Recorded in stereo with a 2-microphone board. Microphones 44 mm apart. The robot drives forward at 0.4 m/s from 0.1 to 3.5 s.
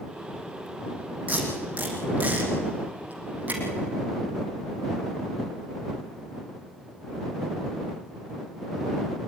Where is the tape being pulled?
30° right (ahead or behind), 5.5 m; by 3.6 s 35° right (ahead or behind), 5 m.